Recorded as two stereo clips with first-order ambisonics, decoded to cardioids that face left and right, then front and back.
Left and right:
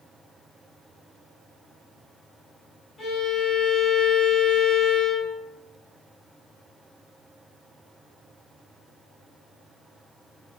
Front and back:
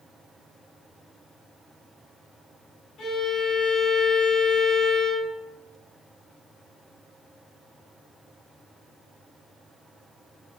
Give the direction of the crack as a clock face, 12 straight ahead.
No crack in this recording.